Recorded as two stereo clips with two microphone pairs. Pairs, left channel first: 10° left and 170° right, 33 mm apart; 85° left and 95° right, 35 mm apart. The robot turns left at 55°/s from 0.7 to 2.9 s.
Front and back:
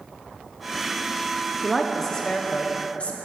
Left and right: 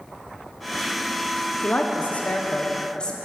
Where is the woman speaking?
100° left, 0.7 m; by 3.1 s 30° left, 0.7 m.